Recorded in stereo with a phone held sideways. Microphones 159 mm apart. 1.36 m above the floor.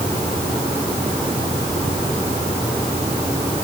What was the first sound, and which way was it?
Only background noise.